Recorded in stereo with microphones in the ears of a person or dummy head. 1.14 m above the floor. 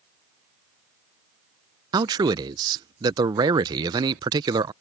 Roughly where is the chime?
I don't hear a chime.